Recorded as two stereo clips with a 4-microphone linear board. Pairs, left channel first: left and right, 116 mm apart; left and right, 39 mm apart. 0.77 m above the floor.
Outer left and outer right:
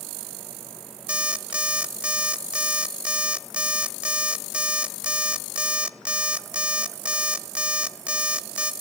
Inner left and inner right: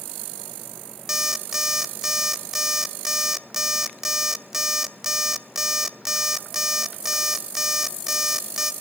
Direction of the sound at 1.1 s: 10° right (ahead or behind).